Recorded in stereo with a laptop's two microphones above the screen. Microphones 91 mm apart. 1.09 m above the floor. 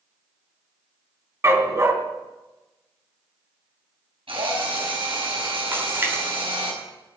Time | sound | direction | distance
1.4 | a dog barking | 35° right (ahead or behind) | 3 m
4.3 | a drill | 85° right | 6.5 m
5.7 | a splash | 25° right (ahead or behind) | 3.5 m